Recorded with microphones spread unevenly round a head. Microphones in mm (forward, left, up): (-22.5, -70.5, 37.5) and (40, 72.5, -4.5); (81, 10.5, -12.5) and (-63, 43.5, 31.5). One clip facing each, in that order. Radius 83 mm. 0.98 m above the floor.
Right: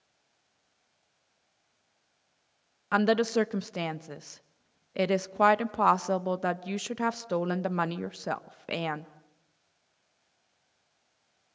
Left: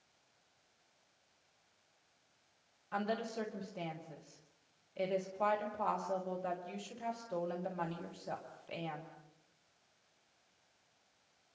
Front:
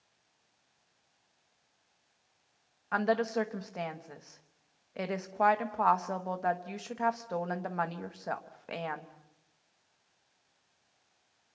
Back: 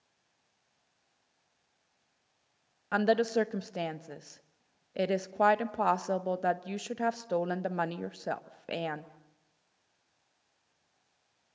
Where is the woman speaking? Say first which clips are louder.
Right 13 dB, back 3 dB; 125° right, 1.0 m.